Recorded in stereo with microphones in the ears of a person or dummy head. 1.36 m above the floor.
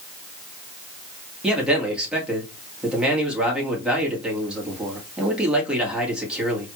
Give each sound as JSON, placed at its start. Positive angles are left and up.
{"t": 1.4, "sound": "a man speaking", "side_deg": -5, "distance_m": 1.9}